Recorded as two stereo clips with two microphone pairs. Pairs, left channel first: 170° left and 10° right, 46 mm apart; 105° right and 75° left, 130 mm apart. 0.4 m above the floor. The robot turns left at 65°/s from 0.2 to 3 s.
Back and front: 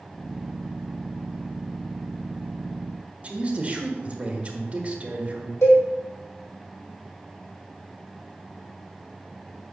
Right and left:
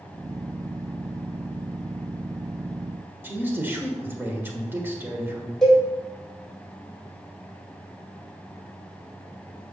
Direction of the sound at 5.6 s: 165° left.